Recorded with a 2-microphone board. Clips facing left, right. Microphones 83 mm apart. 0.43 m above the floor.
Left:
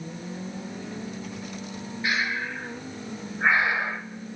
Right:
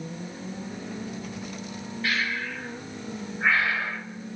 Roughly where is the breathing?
Centre.